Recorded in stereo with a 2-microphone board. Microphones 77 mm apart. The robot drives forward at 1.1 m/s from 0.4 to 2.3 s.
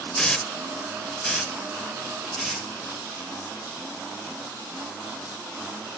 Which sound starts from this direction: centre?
A hiss, at 0.1 s.